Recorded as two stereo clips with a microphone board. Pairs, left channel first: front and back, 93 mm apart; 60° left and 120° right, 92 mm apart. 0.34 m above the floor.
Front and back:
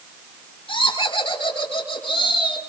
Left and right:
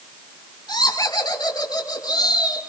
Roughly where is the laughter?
Ahead.